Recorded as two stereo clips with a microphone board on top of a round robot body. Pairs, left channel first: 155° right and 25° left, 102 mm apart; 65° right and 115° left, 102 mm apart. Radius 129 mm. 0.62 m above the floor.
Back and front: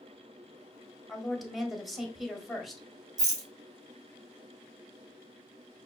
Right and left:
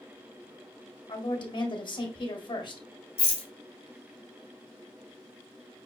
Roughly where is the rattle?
Ahead right.